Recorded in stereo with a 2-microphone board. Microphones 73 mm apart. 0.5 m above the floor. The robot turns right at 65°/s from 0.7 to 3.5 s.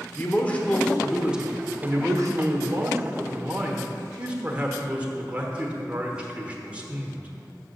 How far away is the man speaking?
About 1.1 m.